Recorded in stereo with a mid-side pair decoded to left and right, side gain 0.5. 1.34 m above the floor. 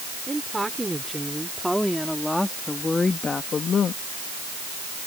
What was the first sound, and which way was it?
A woman speaking, 15° right.